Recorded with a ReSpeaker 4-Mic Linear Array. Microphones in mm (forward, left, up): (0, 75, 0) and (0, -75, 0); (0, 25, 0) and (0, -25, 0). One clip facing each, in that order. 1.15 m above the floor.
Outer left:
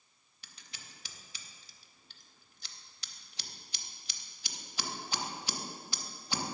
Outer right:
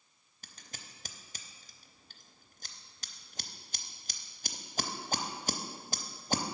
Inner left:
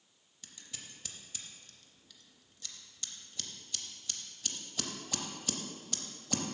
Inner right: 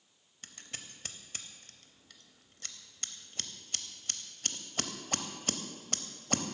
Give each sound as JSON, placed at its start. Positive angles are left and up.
{"t": 0.4, "sound": "scissors", "side_deg": -45, "distance_m": 0.6}